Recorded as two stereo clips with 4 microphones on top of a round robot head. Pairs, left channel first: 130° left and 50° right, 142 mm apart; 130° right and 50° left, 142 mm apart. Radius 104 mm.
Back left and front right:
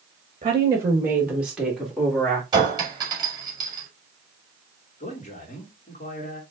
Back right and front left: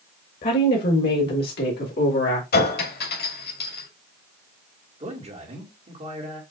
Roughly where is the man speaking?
Left.